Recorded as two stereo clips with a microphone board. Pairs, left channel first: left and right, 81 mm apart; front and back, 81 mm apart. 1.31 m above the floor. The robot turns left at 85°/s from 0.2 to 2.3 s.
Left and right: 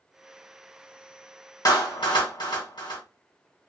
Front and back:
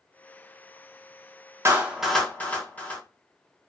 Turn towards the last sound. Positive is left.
turn(degrees=70)